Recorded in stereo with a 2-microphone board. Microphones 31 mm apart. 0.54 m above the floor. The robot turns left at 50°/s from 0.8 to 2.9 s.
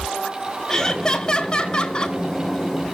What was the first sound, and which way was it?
Laughter, 140° left.